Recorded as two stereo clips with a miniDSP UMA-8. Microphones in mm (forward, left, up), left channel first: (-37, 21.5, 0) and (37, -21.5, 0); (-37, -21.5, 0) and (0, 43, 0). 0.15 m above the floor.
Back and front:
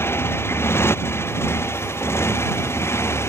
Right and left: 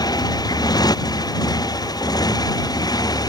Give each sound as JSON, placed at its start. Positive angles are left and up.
{"t": 0.0, "sound": "a motorcycle", "azimuth_deg": -150}